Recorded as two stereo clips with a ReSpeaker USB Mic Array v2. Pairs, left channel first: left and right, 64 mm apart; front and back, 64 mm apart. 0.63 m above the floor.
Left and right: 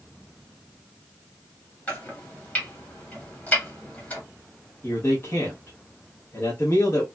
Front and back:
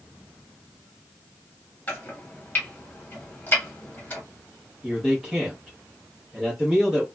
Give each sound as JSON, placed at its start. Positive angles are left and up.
{"t": 1.9, "sound": "chopping", "azimuth_deg": 40, "distance_m": 1.3}
{"t": 4.8, "sound": "a man speaking", "azimuth_deg": 105, "distance_m": 0.9}